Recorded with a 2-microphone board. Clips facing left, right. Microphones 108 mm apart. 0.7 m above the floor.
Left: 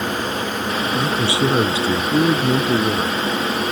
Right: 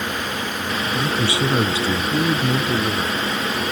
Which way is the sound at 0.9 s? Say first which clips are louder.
Left 1 dB; 20° left (ahead or behind).